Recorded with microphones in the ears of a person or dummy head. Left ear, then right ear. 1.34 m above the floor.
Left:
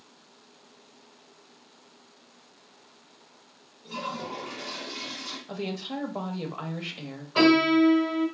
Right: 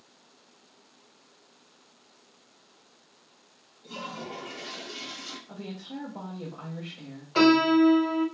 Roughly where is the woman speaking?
Left.